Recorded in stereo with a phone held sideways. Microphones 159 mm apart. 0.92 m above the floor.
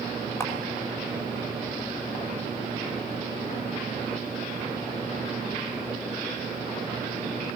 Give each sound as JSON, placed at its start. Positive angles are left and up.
{"t": 0.4, "sound": "a camera shutter", "side_deg": 15, "distance_m": 4.0}